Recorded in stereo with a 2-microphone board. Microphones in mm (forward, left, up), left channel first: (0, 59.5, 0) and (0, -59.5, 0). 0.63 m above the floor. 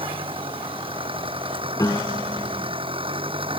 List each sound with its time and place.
0.0 s an engine running: 55° right (ahead or behind)
1.8 s a piano: 30° left (ahead or behind)